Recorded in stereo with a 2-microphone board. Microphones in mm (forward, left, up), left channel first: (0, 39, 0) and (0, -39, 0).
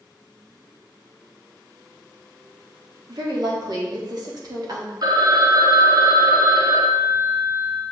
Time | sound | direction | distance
3.1 | a woman speaking | 55° right (ahead or behind) | 1.5 m
5.0 | a phone ringing | 55° right (ahead or behind) | 0.8 m